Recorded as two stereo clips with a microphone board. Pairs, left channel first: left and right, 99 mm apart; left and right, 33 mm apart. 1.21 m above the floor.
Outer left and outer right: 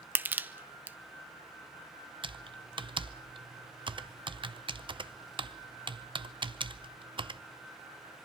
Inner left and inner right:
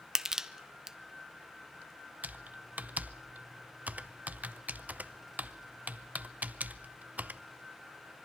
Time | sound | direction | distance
0.1 | crushing | 20° right (ahead or behind) | 0.7 m
2.2 | typing on a keyboard | 60° right (ahead or behind) | 0.6 m